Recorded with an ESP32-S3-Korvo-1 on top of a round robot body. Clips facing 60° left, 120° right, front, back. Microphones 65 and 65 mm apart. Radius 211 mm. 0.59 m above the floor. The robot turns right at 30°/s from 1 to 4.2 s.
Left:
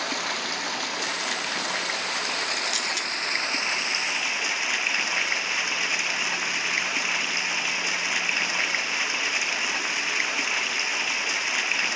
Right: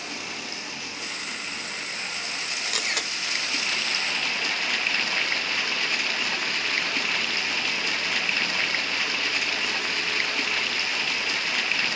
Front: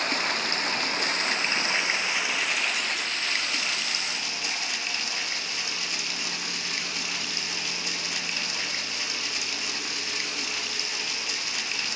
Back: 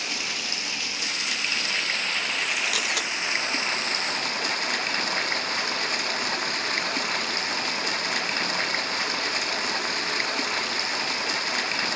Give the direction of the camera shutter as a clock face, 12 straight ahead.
6 o'clock.